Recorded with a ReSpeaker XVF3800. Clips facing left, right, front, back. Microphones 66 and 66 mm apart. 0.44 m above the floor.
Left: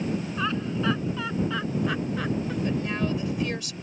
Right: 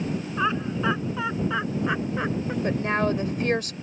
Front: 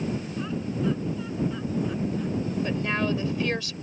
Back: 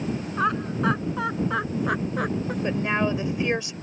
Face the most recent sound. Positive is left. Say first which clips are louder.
# right 5 dB, back 5 dB
turn(degrees=-115)